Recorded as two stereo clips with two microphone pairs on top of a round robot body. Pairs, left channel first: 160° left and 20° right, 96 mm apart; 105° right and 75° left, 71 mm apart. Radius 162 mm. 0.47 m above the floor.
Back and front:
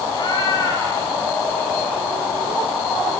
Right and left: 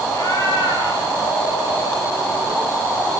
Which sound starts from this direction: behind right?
A cat meowing, at 0.1 s.